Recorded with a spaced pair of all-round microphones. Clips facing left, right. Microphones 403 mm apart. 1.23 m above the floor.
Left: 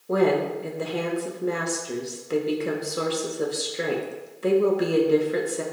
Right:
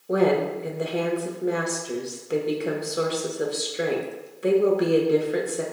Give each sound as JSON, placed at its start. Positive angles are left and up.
{"t": 0.1, "sound": "a woman speaking", "side_deg": 5, "distance_m": 0.6}